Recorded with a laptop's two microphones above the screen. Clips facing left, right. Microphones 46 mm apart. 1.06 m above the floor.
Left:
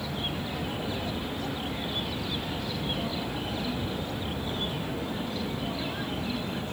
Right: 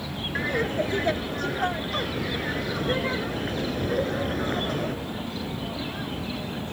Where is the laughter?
70° right (ahead or behind).